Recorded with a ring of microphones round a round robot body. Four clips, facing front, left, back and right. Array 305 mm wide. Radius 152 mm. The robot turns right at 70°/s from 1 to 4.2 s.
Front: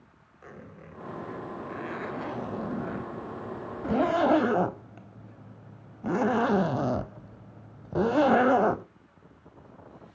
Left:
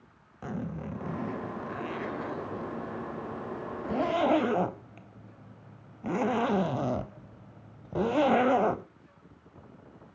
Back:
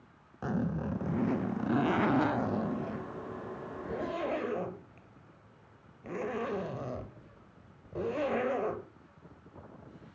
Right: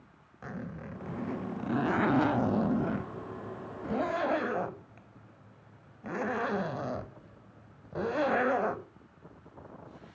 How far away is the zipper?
About 0.6 m.